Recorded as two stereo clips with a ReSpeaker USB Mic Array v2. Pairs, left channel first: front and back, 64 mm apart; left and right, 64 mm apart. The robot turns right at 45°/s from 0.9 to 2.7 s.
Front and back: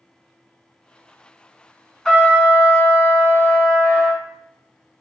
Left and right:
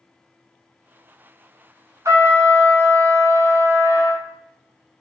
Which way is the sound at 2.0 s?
80° right.